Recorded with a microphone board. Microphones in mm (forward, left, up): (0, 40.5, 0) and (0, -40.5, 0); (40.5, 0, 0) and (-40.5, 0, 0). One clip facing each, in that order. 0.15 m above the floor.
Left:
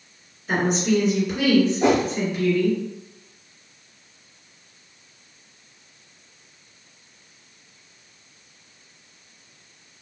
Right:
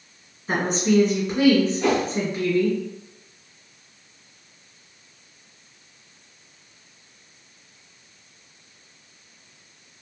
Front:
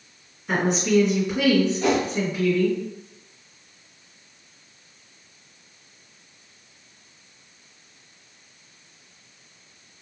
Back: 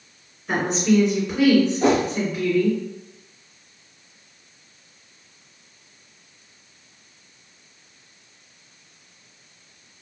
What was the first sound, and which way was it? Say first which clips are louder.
A woman speaking: even, back 1 dB; 85° right.